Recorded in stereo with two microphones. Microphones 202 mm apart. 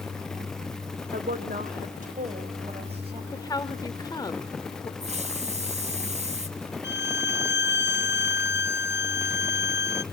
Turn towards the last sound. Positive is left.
turn(degrees=55)  # may be behind; listen again after turning